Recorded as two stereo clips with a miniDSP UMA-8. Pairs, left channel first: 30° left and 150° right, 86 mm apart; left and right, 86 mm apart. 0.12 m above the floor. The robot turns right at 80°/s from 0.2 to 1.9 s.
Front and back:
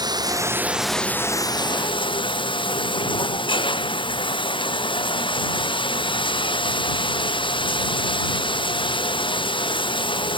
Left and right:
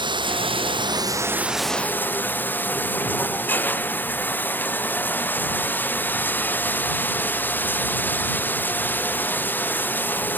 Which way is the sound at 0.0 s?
115° right.